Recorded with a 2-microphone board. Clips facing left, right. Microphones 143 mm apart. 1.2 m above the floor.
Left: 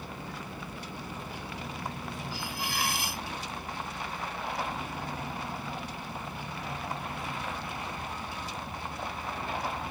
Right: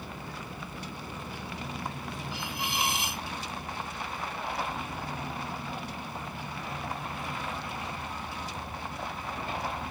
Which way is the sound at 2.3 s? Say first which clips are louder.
Right 2 dB; 20° right (ahead or behind).